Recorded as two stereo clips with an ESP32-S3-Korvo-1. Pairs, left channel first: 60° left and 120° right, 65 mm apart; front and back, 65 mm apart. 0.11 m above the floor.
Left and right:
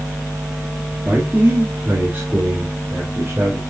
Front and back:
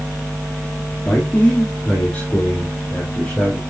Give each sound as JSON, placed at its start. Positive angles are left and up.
{"t": 1.1, "sound": "a man speaking", "azimuth_deg": -70, "distance_m": 3.0}